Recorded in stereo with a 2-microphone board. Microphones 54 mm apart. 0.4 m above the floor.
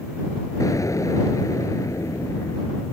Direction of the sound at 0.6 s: 70° left (ahead or behind).